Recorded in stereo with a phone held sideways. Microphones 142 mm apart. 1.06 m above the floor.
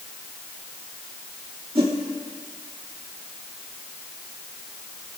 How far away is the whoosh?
About 2.5 m.